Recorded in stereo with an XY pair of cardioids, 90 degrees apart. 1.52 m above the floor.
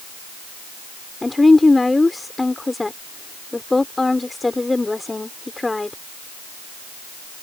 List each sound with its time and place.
1.2 s a woman speaking: 20° left